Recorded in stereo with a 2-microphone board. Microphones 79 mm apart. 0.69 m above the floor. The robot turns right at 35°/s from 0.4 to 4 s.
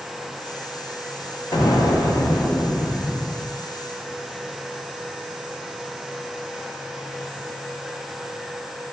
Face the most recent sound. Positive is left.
turn(degrees=-155)